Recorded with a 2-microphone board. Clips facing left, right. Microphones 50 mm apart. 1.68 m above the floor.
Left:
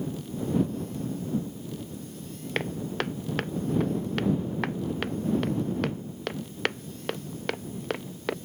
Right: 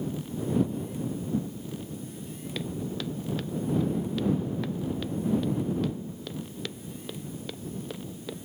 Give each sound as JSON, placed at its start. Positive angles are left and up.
{"t": 2.5, "sound": "footsteps", "side_deg": 55}